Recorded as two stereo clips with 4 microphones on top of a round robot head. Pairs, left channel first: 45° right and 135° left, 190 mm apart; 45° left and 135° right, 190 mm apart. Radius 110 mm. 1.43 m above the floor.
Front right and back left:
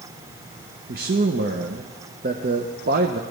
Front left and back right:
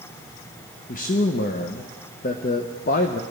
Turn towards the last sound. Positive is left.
turn(degrees=90)